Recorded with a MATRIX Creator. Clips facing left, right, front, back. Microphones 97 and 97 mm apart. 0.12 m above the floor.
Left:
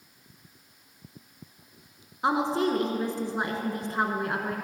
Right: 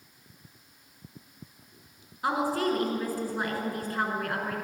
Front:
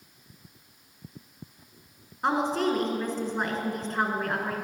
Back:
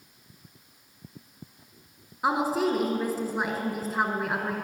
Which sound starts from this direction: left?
A woman speaking, at 2.2 s.